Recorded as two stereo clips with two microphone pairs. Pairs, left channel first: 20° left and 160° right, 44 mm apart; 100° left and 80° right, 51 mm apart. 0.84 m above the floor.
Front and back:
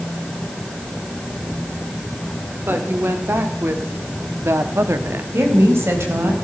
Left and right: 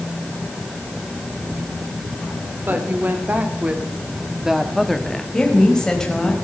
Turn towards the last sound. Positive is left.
turn(degrees=180)